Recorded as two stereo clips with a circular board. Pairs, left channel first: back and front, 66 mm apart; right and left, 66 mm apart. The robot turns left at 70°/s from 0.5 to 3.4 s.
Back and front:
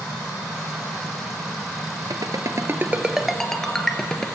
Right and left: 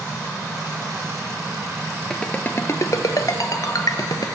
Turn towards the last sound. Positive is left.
turn(degrees=-100)